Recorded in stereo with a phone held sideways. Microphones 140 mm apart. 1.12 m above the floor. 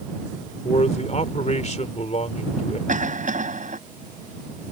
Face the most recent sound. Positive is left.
turn(degrees=-65)  # may be behind; listen again after turning